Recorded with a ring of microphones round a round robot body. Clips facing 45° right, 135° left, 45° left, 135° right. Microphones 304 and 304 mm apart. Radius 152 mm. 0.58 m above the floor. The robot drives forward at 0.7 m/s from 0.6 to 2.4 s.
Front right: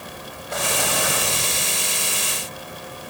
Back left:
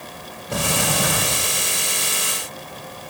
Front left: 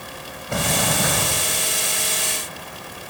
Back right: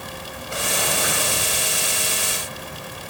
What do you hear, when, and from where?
0.5 s a sliding door: 80° left, 3 m; by 1.6 s 95° left, 3 m